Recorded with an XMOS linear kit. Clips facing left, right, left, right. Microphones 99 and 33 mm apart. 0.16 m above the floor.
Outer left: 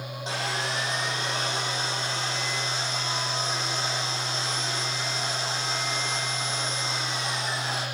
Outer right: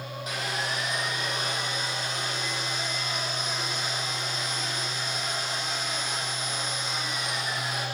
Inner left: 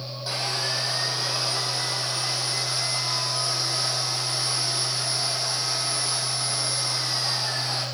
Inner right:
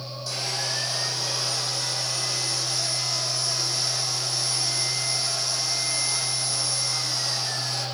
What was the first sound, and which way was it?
Sawing, 30° left (ahead or behind).